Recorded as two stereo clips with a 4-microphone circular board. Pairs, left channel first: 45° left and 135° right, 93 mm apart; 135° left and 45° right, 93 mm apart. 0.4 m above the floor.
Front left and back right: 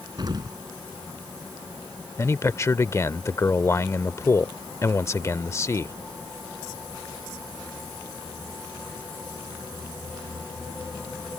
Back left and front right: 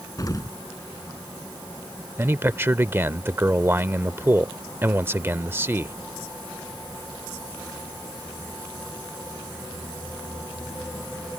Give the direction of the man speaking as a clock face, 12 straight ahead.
12 o'clock.